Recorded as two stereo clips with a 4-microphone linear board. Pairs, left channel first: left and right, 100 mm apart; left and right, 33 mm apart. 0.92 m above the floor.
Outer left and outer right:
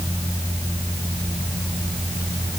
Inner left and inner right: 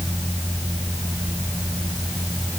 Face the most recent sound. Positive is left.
No sound to turn to.